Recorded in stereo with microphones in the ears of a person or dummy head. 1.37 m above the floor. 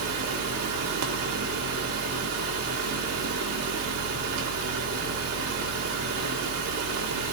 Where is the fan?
85° right, 1.5 m.